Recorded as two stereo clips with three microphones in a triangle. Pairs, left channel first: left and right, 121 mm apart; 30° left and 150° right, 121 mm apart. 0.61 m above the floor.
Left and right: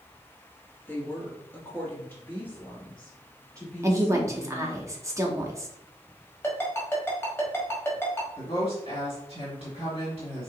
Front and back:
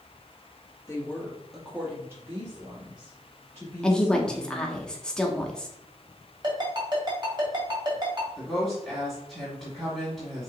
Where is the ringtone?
160° left, 1.5 m.